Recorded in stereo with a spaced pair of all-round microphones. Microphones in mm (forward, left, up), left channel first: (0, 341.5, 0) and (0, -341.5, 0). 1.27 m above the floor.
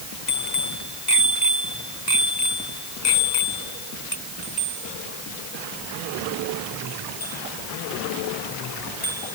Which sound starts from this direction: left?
A bicycle bell, at 0.3 s.